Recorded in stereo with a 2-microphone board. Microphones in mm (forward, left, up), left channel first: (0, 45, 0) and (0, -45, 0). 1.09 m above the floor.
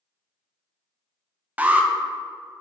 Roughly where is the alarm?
Centre.